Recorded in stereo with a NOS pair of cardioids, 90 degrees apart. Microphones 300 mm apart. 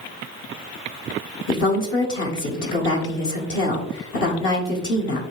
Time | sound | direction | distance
1.5 | a woman speaking | 40° left | 0.9 m